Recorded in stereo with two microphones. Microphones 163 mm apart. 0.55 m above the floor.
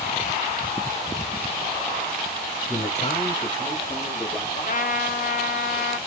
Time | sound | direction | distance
2.7 | a man speaking | 40° left (ahead or behind) | 1.6 m
4.6 | a trumpet | 50° left (ahead or behind) | 0.5 m